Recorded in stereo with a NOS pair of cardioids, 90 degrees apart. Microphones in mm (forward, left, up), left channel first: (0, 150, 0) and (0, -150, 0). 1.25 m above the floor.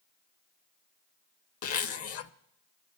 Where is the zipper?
55° left, 0.6 m.